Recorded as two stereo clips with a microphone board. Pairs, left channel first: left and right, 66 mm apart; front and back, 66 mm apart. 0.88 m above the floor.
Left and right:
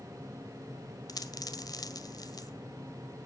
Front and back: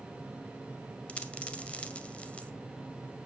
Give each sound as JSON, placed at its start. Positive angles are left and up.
{"t": 1.1, "sound": "a dropped coin", "azimuth_deg": 70, "distance_m": 1.6}